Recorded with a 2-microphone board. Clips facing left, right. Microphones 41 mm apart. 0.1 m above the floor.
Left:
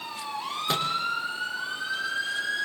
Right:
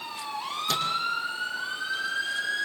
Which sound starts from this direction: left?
A microwave, at 0.7 s.